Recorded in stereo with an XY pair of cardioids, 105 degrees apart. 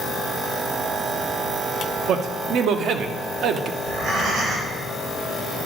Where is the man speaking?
70° right, 0.8 m.